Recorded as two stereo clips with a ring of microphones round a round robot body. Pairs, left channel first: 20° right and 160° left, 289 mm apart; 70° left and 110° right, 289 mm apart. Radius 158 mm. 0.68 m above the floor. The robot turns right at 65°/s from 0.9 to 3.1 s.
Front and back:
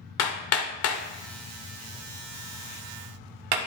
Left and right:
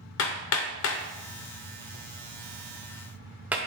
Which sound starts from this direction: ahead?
Hammering, at 0.2 s.